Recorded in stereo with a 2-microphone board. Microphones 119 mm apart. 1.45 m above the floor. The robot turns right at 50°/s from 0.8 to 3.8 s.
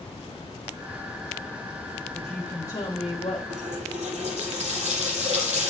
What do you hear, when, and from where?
2.1 s a woman speaking: 5° right, 1.4 m; by 3.4 s 60° left, 1.4 m
3.5 s a running tap: 80° right, 6 m; by 5.7 s 65° right (ahead or behind), 6 m